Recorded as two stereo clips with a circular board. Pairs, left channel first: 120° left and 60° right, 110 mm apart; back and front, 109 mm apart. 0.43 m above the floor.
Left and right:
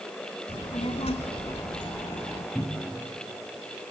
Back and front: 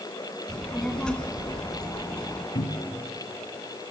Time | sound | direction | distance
0.5 | a child speaking | 100° left | 2 m
2.5 | a cupboard door | 160° right | 2.5 m